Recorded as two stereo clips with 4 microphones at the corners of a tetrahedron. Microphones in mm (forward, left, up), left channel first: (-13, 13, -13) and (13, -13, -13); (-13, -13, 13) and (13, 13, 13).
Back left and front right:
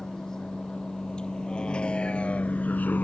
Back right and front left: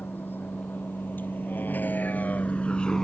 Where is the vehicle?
155° right; by 3.0 s 150° left.